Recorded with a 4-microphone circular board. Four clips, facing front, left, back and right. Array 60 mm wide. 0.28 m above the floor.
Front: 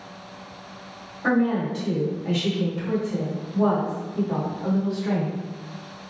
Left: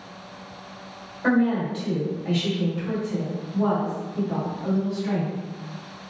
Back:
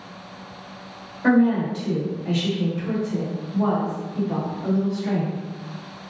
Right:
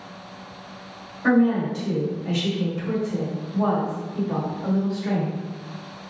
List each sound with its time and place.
1.2 s a woman speaking: 105° left, 1.8 m; by 5.4 s 60° right, 2.0 m